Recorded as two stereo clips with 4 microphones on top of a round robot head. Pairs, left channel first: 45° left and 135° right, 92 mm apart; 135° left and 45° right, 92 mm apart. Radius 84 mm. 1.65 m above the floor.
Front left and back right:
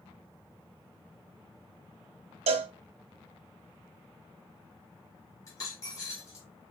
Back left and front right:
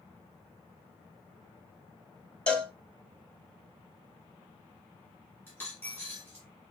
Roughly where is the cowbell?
Behind right.